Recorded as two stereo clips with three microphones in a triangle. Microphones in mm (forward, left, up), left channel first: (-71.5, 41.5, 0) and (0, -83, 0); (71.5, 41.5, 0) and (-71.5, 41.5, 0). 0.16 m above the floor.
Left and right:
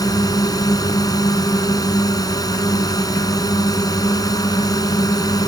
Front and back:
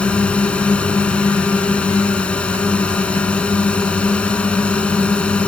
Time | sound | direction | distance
0.0 | a drone | 80° left | ?